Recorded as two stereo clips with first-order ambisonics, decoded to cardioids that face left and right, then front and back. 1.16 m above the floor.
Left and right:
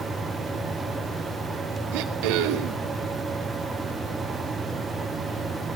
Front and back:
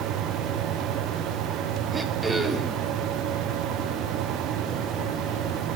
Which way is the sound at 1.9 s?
100° right.